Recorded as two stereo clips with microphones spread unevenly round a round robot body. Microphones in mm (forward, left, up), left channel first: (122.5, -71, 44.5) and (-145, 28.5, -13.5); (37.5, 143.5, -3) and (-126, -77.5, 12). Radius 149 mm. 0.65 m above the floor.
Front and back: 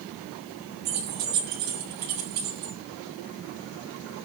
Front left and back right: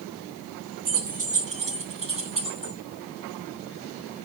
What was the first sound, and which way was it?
Keys jangling, 170° left.